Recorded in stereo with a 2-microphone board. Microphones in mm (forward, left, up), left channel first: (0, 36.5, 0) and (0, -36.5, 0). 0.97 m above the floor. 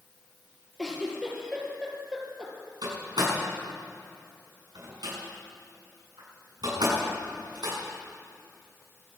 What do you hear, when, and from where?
0.8 s a giggle: 10° right (ahead or behind), 3.5 m
2.8 s a door slam: 80° right, 7 m